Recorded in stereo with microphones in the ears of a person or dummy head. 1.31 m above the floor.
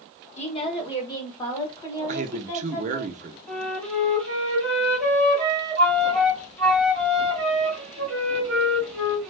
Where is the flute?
5° left (ahead or behind), 2.5 m.